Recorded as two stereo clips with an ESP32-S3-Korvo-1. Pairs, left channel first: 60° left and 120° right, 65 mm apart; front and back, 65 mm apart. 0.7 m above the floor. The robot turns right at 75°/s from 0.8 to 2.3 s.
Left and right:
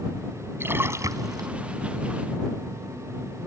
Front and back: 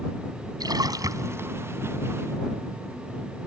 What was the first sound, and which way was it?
A splash, 175° right.